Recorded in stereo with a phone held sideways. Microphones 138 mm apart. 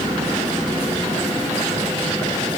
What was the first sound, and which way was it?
Only background noise.